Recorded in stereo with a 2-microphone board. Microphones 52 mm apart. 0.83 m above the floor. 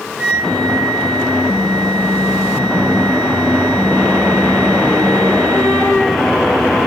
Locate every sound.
0.2 s a flute: 20° right (ahead or behind), 2.0 m